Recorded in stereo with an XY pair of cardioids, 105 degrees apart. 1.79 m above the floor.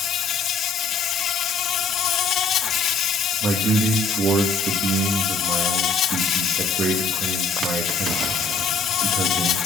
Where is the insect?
65° left, 0.9 m.